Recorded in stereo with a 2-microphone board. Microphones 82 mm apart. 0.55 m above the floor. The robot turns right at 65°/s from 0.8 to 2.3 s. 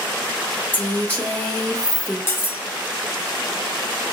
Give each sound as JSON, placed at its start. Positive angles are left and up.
{"t": 0.7, "sound": "a woman speaking", "side_deg": 20, "distance_m": 0.7}
{"t": 2.3, "sound": "cutlery clinking", "side_deg": 30, "distance_m": 0.8}